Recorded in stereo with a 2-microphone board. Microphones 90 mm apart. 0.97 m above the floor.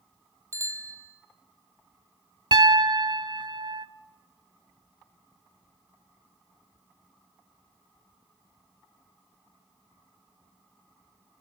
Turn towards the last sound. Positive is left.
turn(degrees=-60)  # may be behind; listen again after turning